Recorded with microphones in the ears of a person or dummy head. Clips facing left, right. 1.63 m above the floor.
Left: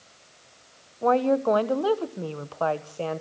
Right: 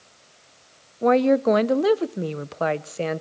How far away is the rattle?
I don't hear a rattle.